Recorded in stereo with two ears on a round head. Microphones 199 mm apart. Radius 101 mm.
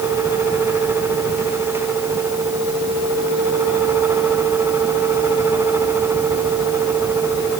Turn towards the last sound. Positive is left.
No sound to turn to.